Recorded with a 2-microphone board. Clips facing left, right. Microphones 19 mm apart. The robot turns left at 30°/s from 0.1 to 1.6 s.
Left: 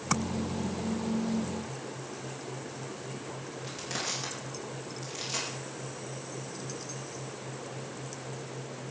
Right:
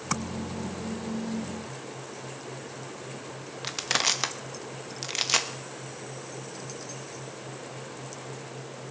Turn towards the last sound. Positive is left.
turn(degrees=-60)  # may be behind; listen again after turning